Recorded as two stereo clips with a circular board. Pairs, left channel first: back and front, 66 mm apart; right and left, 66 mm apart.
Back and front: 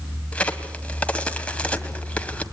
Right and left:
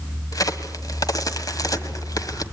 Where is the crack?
110° right, 1.6 m.